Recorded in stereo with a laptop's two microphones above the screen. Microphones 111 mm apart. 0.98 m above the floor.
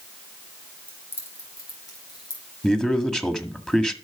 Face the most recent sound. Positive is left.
turn(degrees=5)  # may be behind; listen again after turning